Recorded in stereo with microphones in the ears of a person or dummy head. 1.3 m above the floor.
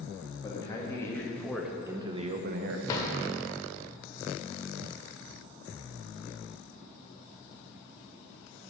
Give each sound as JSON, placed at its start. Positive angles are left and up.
{"t": 0.4, "sound": "a man speaking", "side_deg": 25, "distance_m": 1.8}
{"t": 2.9, "sound": "a drawer", "side_deg": 30, "distance_m": 1.3}